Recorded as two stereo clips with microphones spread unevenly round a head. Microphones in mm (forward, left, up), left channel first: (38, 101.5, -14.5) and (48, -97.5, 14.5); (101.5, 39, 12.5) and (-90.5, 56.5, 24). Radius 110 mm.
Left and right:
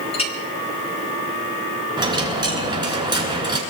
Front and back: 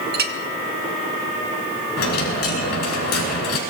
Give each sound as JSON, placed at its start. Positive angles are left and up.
{"t": 0.1, "sound": "a clink", "azimuth_deg": 160, "distance_m": 1.2}
{"t": 2.0, "sound": "a dropped coin", "azimuth_deg": -20, "distance_m": 5.0}